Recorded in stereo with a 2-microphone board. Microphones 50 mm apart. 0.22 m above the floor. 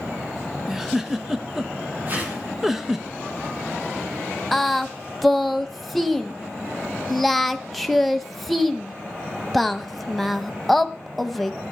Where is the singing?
5° left (ahead or behind), 0.8 m.